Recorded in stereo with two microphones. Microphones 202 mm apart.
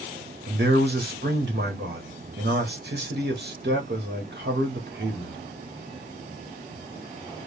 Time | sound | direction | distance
0.5 | a man speaking | 60° right (ahead or behind) | 1.6 m